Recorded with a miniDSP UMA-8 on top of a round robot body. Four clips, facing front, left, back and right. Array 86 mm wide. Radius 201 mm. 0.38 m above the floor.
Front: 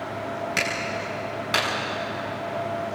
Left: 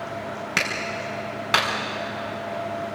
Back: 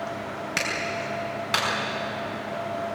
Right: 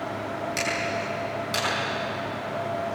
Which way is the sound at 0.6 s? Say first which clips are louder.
Left 1 dB, front 1 dB; 95° left.